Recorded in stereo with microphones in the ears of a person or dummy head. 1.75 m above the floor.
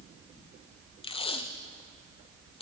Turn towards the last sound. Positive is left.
turn(degrees=40)  # may be behind; listen again after turning